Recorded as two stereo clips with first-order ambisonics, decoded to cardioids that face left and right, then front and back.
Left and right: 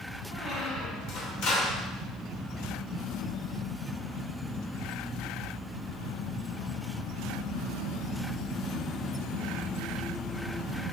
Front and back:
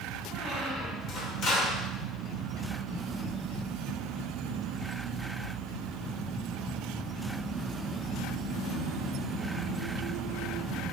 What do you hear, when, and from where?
0.3 s a squeak: 55° left, 0.7 m